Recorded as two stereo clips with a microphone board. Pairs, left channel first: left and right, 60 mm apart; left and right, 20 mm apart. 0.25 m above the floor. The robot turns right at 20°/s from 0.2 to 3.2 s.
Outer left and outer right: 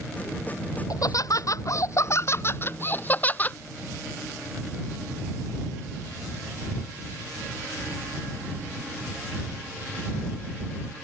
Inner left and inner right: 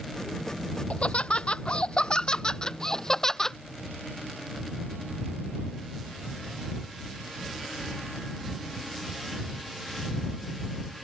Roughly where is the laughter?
Left.